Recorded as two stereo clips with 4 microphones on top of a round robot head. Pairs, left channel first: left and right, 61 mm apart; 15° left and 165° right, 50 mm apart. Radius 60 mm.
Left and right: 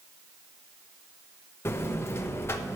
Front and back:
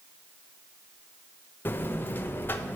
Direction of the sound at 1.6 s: 50° left.